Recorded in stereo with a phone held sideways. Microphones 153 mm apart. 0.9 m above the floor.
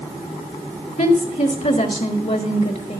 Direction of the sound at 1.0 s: 55° left (ahead or behind).